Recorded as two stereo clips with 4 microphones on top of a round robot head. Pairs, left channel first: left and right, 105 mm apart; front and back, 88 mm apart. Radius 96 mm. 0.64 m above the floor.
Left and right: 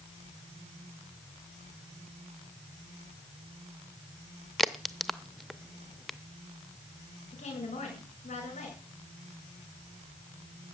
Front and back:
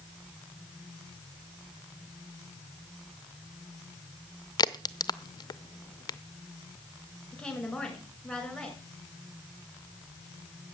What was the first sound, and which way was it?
A crack, straight ahead.